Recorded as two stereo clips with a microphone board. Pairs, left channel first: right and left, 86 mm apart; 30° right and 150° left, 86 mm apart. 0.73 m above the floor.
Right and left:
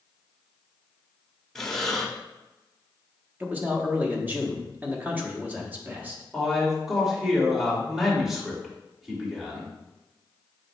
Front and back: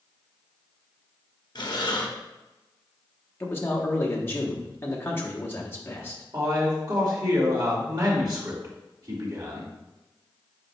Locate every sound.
1.6 s breathing: 5° right, 1.1 m
3.4 s a man speaking: 25° left, 1.4 m
6.3 s a man speaking: 175° left, 2 m